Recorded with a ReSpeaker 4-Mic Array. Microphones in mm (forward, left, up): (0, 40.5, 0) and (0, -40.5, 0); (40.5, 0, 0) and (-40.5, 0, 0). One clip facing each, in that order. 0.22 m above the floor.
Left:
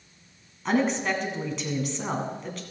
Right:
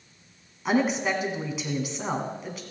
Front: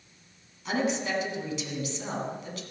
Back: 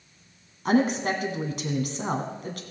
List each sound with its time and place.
0.7 s a woman speaking: 170° right, 1.7 m